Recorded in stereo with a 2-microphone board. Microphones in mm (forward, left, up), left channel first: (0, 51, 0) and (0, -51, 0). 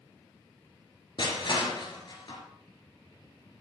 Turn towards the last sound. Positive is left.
turn(degrees=55)  # may be behind; listen again after turning